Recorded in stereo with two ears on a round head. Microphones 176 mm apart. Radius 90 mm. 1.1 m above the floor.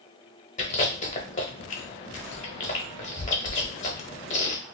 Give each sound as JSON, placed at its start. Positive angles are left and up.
{"t": 0.6, "sound": "chewing", "side_deg": 35, "distance_m": 1.0}